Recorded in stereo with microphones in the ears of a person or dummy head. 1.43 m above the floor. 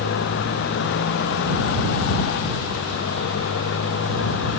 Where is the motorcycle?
65° left (ahead or behind); by 4.6 s 70° left (ahead or behind).